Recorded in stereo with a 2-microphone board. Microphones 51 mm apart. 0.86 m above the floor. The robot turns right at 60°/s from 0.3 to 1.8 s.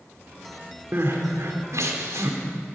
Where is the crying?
45° right (ahead or behind), 3 m; by 2.4 s 70° right (ahead or behind), 3 m.